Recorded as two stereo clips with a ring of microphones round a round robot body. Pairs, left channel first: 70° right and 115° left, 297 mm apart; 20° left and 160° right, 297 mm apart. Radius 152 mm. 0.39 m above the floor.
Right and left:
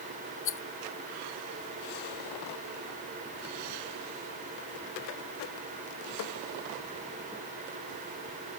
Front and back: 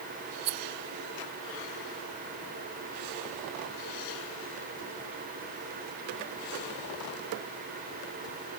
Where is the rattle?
120° right.